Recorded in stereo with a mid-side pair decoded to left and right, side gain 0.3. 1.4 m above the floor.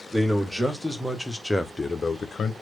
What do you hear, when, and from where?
0.1 s a man speaking: 10° right, 1.8 m; by 2.5 s 80° left, 0.7 m